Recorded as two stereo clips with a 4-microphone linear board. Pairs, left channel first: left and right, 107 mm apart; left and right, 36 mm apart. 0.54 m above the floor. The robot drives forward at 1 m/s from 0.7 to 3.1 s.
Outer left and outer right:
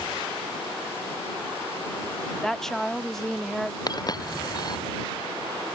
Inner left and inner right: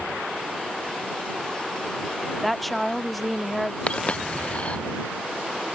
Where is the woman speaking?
5° left (ahead or behind).